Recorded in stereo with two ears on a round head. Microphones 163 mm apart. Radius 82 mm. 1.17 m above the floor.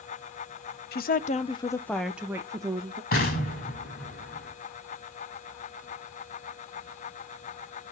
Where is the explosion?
55° left (ahead or behind), 4.5 m.